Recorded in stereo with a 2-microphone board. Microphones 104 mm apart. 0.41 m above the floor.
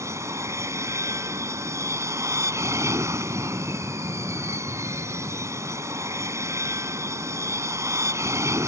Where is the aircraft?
25° right (ahead or behind).